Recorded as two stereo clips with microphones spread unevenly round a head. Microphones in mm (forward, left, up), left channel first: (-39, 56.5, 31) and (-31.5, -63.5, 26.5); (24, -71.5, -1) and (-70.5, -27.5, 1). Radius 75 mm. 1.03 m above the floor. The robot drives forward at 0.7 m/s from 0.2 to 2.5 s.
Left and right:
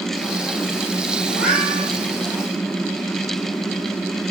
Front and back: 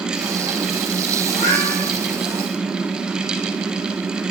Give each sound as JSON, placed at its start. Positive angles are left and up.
{"t": 1.3, "sound": "a cat meowing", "azimuth_deg": -5, "distance_m": 6.0}